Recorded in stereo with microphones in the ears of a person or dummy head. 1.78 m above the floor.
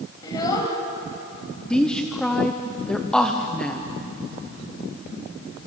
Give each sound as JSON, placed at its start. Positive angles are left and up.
{"t": 0.2, "sound": "a child speaking", "side_deg": 20, "distance_m": 6.5}
{"t": 1.7, "sound": "a woman speaking", "side_deg": 5, "distance_m": 1.2}